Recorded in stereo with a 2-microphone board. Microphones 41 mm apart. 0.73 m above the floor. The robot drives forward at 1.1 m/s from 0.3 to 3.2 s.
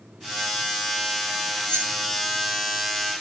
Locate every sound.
1.6 s keys jangling: 90° right, 4.5 m; by 1.9 s 85° right, 4.5 m